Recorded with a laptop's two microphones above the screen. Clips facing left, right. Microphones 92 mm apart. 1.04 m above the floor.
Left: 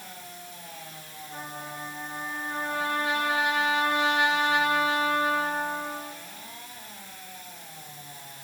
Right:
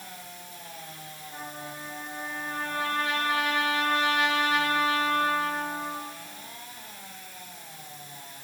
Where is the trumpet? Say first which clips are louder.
Left 2 dB; 15° left (ahead or behind), 8 m.